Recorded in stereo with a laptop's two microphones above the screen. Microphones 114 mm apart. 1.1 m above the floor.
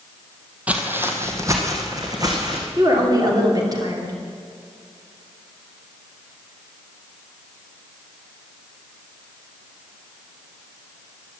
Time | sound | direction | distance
0.7 | footsteps | 10° right (ahead or behind) | 1.3 m
2.8 | a woman speaking | 40° right (ahead or behind) | 2.5 m